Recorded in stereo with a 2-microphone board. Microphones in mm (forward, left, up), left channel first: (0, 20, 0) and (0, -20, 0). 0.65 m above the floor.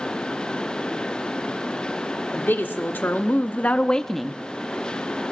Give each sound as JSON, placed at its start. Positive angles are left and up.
{"t": 2.3, "sound": "a woman speaking", "side_deg": 65, "distance_m": 1.4}